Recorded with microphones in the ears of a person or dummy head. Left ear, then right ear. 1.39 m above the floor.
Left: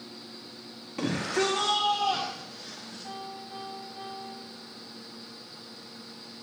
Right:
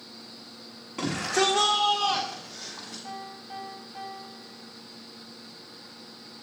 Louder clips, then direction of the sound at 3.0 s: Even; 5° right (ahead or behind).